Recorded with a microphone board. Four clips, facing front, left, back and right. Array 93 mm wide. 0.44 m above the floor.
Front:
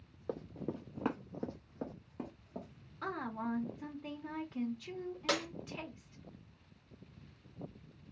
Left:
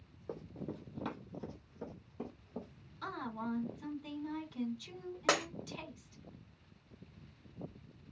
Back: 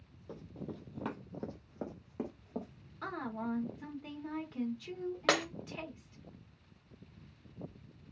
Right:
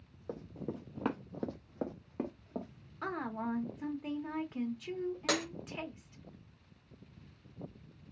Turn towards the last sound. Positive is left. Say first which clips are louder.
# left 3 dB, back 5 dB
turn(degrees=155)